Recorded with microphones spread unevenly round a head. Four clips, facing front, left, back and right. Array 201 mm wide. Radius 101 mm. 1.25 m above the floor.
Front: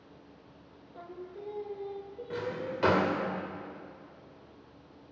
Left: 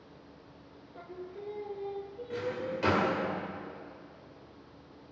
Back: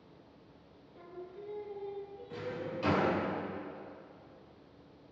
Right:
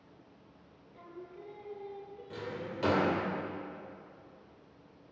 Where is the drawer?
5° right, 2.5 m.